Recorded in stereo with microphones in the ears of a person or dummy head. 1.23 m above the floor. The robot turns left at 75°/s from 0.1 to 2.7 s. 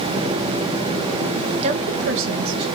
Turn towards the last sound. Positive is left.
turn(degrees=-120)